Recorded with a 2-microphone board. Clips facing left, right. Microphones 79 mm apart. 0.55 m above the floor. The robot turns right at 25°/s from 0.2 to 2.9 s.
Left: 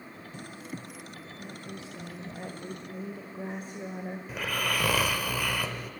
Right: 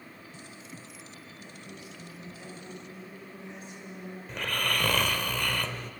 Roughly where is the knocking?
I don't hear knocking.